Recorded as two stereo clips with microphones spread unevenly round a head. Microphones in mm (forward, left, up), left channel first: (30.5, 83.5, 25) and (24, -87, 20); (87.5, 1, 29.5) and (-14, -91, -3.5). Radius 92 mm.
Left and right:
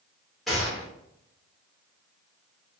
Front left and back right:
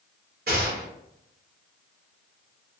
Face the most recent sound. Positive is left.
turn(degrees=175)